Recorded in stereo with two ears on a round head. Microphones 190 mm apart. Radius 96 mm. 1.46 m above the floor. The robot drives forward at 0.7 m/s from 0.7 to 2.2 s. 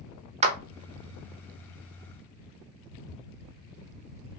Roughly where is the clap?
Right.